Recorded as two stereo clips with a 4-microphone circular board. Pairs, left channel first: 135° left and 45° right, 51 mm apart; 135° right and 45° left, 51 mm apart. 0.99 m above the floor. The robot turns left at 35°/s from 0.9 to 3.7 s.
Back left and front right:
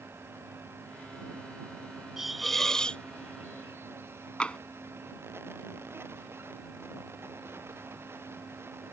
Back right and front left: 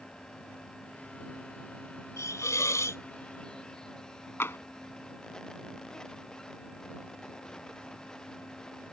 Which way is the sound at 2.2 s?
130° right.